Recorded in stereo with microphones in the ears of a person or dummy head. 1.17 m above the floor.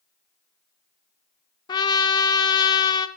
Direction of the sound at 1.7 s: 20° left (ahead or behind).